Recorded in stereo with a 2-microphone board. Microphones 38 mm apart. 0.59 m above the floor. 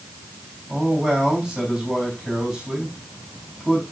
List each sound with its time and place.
0.7 s a man speaking: 5° right (ahead or behind), 4 m